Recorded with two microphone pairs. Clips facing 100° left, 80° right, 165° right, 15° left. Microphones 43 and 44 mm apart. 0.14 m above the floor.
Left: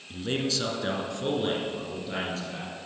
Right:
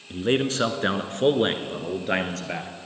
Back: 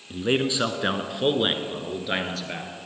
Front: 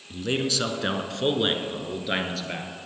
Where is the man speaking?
115° right, 1.3 m; by 2.7 s 70° right, 2 m.